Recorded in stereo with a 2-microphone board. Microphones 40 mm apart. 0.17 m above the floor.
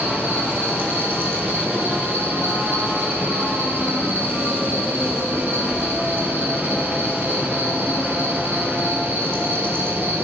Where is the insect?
70° right (ahead or behind), 3 m.